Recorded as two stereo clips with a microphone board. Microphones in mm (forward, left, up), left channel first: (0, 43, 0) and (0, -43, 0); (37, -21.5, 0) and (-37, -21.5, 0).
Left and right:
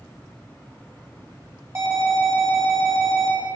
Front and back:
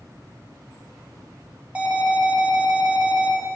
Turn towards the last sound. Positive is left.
turn(degrees=-115)